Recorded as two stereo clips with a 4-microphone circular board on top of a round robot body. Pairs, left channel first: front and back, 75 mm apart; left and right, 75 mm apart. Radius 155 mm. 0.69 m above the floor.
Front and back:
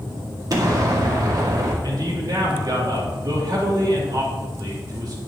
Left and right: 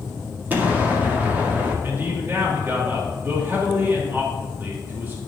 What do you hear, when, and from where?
0.5 s an explosion: 155° right, 2.5 m
1.8 s a man speaking: 150° right, 3 m